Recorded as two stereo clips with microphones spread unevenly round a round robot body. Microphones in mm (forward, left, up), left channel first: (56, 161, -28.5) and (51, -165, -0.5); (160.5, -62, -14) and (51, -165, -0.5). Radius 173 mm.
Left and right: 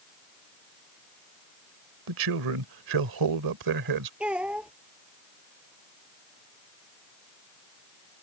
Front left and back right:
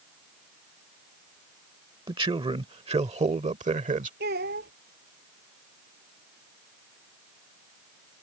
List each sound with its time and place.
2.1 s a man speaking: 85° right; by 4.1 s 115° right
4.2 s a child speaking: straight behind